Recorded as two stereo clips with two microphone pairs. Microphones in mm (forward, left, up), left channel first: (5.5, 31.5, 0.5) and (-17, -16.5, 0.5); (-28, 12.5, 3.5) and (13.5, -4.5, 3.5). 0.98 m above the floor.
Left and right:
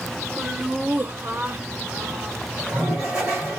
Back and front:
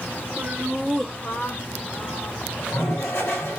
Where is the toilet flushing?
175° left, 3 m.